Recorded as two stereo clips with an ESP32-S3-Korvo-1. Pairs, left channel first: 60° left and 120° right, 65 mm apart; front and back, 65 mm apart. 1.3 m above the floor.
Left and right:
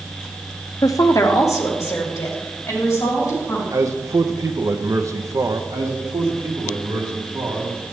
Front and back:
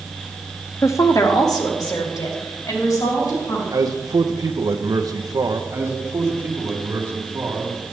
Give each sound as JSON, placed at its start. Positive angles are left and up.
{"t": 0.8, "sound": "a woman speaking", "azimuth_deg": 45, "distance_m": 0.6}
{"t": 3.7, "sound": "a man speaking", "azimuth_deg": -155, "distance_m": 0.7}
{"t": 5.7, "sound": "a man speaking", "azimuth_deg": -130, "distance_m": 1.9}